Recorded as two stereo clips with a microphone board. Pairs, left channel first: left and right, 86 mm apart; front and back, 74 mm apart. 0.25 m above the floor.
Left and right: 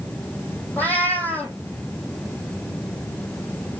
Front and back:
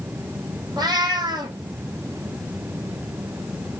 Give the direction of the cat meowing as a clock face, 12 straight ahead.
7 o'clock.